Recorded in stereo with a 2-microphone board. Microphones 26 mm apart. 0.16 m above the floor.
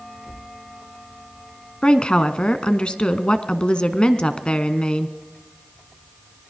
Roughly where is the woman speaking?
Left.